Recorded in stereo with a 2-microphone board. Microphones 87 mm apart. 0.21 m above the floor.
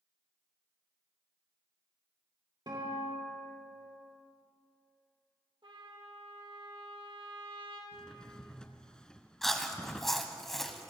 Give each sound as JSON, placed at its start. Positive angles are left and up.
{"t": 2.7, "sound": "a guitar", "side_deg": -55, "distance_m": 5.5}
{"t": 5.6, "sound": "a trumpet", "side_deg": -70, "distance_m": 4.0}
{"t": 7.9, "sound": "a drawer", "side_deg": 10, "distance_m": 0.9}
{"t": 9.4, "sound": "chewing", "side_deg": 5, "distance_m": 1.1}